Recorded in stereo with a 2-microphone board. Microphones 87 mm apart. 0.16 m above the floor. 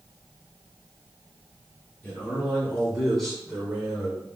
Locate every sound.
2.0 s a man speaking: 15° left (ahead or behind), 1.6 m; by 4.2 s 10° right (ahead or behind), 1.3 m